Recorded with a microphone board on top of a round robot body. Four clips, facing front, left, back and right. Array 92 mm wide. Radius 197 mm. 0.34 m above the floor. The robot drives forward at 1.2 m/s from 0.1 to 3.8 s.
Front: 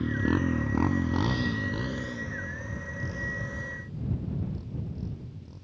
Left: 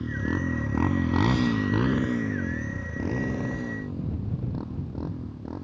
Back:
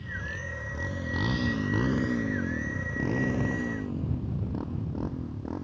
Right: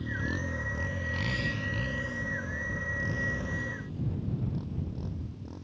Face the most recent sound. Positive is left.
turn(degrees=145)